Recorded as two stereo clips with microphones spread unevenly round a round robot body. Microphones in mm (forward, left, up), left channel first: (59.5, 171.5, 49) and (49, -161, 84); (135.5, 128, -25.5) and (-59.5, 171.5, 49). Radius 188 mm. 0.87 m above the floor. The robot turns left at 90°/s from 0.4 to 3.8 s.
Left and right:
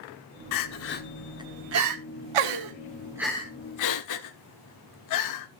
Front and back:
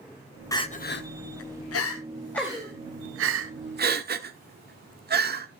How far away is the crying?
About 1.2 m.